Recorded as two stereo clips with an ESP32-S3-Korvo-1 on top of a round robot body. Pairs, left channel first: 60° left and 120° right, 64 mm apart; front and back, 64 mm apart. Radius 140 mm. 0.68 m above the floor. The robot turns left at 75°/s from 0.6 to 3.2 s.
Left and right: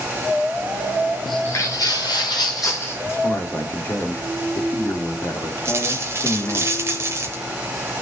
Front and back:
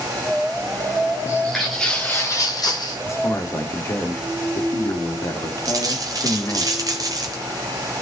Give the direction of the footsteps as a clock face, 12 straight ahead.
1 o'clock.